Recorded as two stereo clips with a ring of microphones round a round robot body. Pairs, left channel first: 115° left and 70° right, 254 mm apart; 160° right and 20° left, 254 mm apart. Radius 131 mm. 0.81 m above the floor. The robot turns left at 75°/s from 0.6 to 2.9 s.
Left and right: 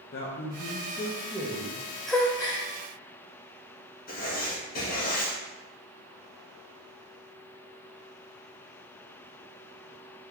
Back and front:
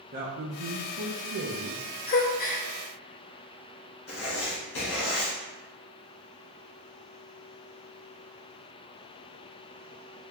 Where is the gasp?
160° right, 0.6 m; by 2.7 s 155° left, 0.6 m.